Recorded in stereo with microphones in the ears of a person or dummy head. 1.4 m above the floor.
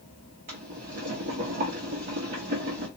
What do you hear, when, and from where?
0.5 s boiling: 30° right (ahead or behind), 1.0 m